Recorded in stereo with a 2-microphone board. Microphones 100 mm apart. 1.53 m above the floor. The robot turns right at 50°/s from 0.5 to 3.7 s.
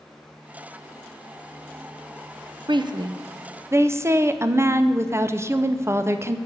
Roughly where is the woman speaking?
Right.